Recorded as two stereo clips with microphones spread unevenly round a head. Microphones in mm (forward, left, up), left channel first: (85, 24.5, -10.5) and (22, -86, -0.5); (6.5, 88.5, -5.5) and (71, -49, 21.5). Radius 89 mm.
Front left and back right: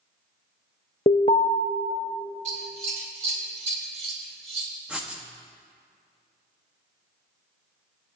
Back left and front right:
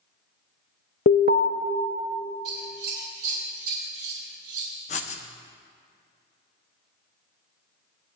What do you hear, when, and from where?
1.1 s an alarm: 105° left, 0.5 m
2.5 s scissors: 105° right, 3 m
4.9 s writing: 165° left, 0.6 m